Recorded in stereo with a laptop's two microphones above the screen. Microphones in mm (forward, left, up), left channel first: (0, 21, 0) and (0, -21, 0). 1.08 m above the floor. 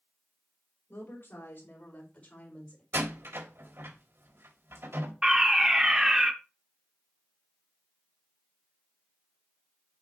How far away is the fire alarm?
About 1.0 m.